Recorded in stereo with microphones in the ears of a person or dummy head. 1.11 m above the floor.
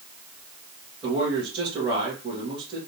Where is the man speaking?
25° right (ahead or behind), 1.6 m.